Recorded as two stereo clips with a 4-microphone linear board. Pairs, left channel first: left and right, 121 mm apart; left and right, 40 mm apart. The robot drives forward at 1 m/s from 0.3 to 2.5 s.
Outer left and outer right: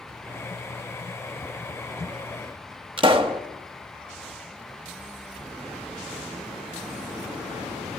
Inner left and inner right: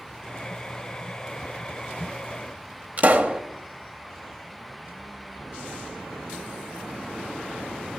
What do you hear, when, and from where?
3.0 s a pop: 45° right (ahead or behind), 0.7 m